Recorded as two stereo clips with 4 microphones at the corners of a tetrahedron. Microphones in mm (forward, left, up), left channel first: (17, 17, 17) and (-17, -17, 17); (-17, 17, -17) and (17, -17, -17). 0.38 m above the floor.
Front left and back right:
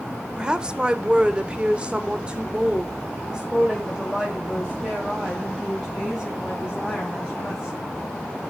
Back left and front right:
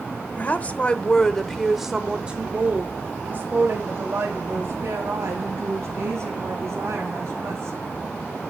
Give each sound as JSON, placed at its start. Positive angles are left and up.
{"t": 0.4, "sound": "a woman speaking", "azimuth_deg": 160, "distance_m": 1.1}